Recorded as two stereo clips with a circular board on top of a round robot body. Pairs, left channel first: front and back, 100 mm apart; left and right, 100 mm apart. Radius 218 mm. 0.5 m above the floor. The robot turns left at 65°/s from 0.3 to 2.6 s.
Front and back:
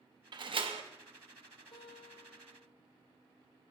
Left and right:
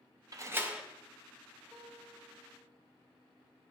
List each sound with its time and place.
0.3 s a door slam: 140° right, 0.7 m; by 0.8 s 175° right, 0.7 m
1.7 s a guitar: 30° right, 2 m; by 2.7 s 90° right, 2 m